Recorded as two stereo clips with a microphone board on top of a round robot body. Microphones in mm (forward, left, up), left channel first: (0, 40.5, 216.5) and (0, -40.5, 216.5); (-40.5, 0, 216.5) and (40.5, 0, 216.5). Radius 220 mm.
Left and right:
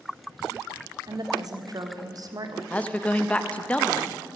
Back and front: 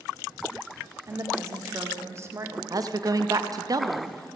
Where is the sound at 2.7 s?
20° left, 1.1 m.